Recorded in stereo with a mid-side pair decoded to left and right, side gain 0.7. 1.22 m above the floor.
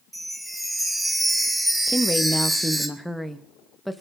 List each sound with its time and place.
0.1 s a chime: 5° right, 2.5 m
1.9 s a woman speaking: 5° right, 1.7 m